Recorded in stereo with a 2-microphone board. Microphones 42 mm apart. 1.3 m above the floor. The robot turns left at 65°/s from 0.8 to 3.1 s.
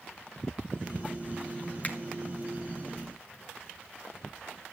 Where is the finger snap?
35° left (ahead or behind), 1.7 m; by 2.0 s 40° left (ahead or behind), 1.7 m.